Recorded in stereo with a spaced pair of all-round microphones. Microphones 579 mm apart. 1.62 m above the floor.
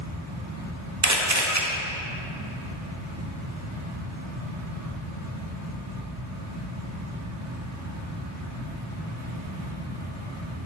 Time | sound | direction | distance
0.0 | a fan | 25° right (ahead or behind) | 1.2 m
1.0 | a camera shutter | 30° right (ahead or behind) | 0.9 m